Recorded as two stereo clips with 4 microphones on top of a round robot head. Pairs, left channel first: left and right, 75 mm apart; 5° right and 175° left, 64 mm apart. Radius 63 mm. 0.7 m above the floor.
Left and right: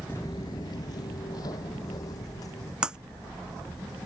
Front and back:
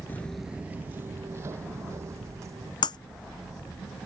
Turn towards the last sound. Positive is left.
turn(degrees=-10)